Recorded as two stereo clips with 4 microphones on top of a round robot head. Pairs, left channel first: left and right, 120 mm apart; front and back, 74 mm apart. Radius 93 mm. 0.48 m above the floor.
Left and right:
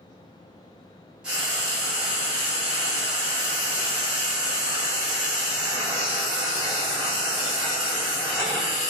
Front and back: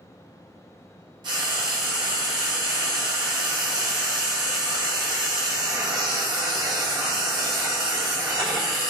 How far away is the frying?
About 3 m.